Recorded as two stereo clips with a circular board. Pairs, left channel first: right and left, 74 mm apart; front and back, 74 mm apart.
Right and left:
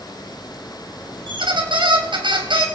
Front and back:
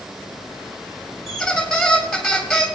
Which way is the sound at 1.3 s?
90° left.